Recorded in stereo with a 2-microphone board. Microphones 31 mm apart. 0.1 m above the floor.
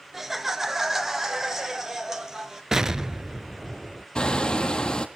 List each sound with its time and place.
0.1 s laughter: 10° right (ahead or behind), 1.2 m; by 2.6 s 15° right (ahead or behind), 2 m
2.7 s an explosion: 20° right (ahead or behind), 0.7 m
4.2 s hammering: 30° left (ahead or behind), 1.6 m